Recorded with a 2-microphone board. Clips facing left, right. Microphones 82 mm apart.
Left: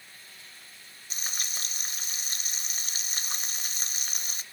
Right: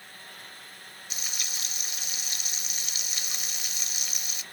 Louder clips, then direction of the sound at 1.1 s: Left 2 dB; 40° left (ahead or behind).